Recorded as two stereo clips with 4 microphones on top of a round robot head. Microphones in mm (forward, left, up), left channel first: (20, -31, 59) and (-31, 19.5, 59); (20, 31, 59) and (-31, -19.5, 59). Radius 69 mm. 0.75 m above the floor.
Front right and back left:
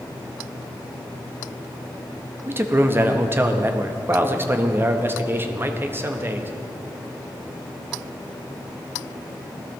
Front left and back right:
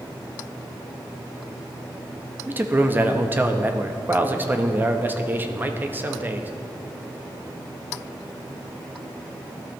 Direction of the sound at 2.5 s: 175° left.